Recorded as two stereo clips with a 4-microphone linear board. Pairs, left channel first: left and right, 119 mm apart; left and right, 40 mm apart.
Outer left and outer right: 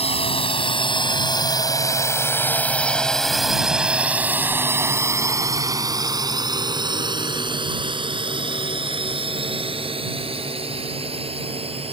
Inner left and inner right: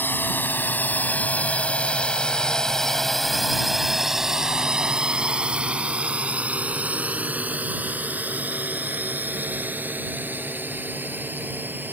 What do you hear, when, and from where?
0.0 s a drone: 55° left (ahead or behind); by 11.9 s 55° right (ahead or behind)